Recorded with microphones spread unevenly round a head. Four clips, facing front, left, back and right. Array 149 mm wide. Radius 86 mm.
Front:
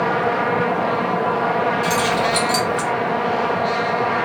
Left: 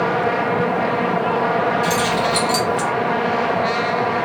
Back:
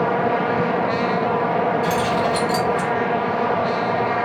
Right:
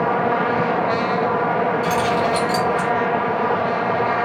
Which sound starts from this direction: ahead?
Keys jangling, at 1.8 s.